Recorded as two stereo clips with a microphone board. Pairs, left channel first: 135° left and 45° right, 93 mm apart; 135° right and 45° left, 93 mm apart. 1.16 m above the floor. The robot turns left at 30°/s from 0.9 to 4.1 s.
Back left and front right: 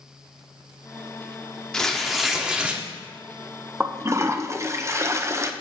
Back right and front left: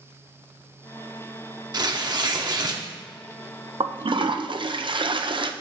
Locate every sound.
1.7 s tearing paper: 55° left, 0.9 m; by 2.8 s 25° left, 0.9 m
3.8 s a toilet flushing: 25° left, 0.5 m; by 5.5 s 15° left, 0.5 m